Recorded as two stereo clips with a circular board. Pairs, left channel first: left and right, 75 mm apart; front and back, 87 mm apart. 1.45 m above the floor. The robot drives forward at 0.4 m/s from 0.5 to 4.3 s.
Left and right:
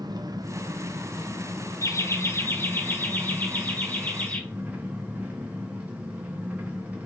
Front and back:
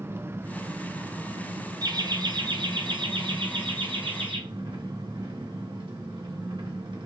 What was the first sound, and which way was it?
An engine running, 120° right.